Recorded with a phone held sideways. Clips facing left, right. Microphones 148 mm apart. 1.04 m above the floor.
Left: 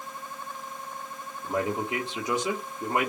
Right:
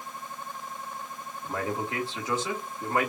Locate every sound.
1.4 s a man speaking: 20° left (ahead or behind), 2 m